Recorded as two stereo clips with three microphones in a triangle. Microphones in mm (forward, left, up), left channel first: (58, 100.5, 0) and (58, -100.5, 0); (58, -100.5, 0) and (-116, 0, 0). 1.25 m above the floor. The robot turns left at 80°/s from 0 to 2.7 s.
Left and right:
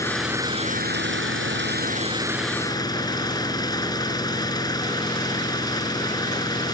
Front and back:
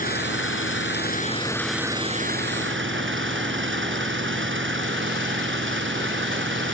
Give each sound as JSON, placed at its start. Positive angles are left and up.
{"t": 0.0, "sound": "an engine running", "azimuth_deg": 15}